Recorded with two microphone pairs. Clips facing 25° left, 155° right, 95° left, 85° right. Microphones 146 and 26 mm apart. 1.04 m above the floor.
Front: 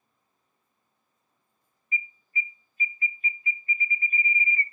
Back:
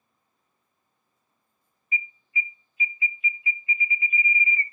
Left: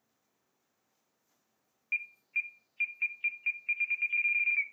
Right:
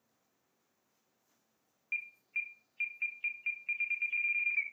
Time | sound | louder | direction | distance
1.9 | an alarm | back 2 dB, left 4 dB | 25° left | 0.8 m